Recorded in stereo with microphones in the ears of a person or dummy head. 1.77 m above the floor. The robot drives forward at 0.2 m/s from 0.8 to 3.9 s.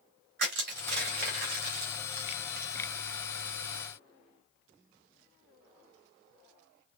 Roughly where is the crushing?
Right.